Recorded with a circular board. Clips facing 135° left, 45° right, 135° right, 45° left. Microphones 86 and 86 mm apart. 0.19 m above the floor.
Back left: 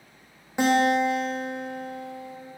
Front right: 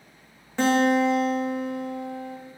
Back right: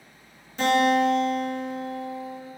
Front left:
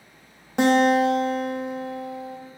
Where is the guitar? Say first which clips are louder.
Front right 1 dB, front left 3 dB; 60° left, 2 m.